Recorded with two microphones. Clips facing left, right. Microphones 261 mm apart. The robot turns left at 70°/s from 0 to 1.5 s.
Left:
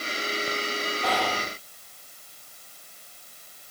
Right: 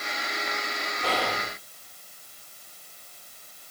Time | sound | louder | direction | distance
1.0 | whispering | right 1 dB | 140° right | 1.4 m